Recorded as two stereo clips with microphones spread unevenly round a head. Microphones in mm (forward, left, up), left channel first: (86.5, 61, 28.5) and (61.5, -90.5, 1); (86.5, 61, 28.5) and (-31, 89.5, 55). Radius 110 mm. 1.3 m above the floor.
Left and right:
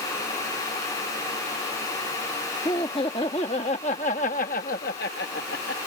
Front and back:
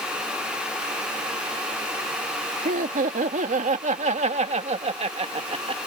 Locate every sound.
2.6 s laughter: 150° left; by 5.8 s 125° left